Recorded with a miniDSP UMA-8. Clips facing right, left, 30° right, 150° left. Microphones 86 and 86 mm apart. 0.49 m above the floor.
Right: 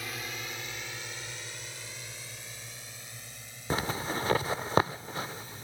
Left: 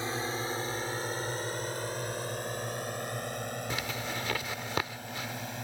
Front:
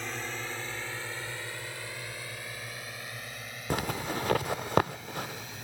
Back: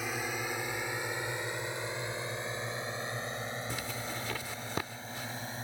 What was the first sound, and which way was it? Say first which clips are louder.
A drone: left 7 dB, back 2 dB; 75° left.